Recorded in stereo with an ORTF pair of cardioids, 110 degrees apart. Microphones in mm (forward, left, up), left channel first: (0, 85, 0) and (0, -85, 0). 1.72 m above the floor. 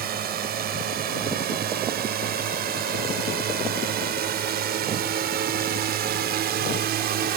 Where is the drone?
60° right; by 7.4 s 65° right.